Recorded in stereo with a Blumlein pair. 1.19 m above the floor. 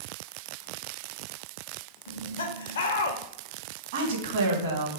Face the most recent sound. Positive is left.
turn(degrees=-60)